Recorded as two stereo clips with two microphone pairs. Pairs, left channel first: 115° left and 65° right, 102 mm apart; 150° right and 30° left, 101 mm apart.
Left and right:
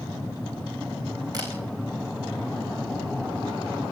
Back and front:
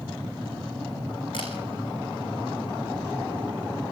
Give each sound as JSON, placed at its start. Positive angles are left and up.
{"t": 1.3, "sound": "a camera shutter", "azimuth_deg": -115, "distance_m": 5.0}